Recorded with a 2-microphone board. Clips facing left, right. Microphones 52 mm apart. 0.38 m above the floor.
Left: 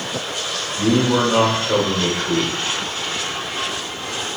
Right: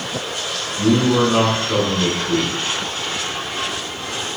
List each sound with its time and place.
0.8 s a man speaking: 20° left (ahead or behind), 0.8 m